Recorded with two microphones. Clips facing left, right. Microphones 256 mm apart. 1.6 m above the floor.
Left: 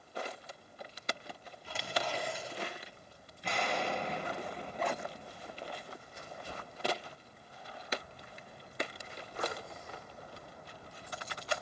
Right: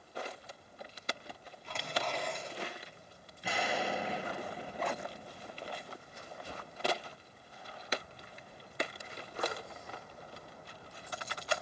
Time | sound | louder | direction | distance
1.6 | tearing paper | left 1 dB | 10° left (ahead or behind) | 2.5 m
3.4 | an explosion | even | 5° right (ahead or behind) | 0.8 m